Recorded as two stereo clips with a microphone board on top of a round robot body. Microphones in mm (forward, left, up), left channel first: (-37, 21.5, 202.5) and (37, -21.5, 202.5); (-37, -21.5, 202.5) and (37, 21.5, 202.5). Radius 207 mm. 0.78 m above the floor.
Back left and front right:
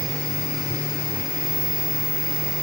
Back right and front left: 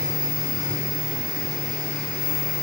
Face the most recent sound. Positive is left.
No sound to turn to.